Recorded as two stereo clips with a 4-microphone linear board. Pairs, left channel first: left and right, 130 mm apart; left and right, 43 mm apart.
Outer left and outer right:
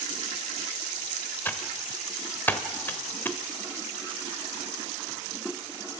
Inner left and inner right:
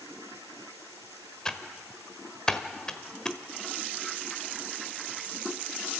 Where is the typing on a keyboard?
15° left (ahead or behind), 1.0 m.